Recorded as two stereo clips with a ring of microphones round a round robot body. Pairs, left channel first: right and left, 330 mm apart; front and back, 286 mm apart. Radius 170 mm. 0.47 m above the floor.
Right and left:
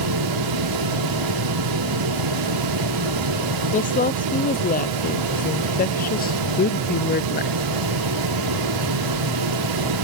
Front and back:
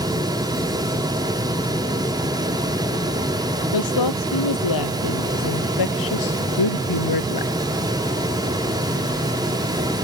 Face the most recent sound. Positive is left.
turn(degrees=-30)